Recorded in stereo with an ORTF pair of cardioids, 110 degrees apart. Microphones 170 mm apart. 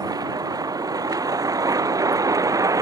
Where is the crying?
No crying in this recording.